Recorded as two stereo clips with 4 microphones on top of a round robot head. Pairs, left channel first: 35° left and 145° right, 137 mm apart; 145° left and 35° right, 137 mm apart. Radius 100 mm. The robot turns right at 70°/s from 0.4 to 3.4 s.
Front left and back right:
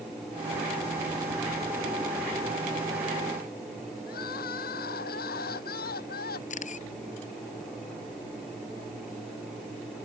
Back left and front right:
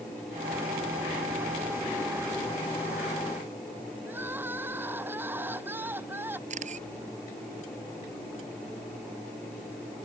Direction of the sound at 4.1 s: 40° left.